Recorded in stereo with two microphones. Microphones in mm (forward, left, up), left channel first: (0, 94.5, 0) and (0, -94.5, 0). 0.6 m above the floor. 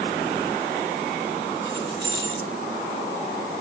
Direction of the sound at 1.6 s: 75° left (ahead or behind).